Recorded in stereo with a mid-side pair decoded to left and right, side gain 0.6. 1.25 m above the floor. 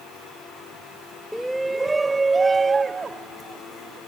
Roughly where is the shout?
Ahead.